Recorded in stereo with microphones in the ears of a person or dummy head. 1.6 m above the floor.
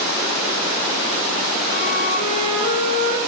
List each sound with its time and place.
1.7 s a flute: 50° left (ahead or behind), 6 m